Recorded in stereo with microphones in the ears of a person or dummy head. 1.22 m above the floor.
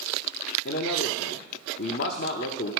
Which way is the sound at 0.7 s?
60° left (ahead or behind).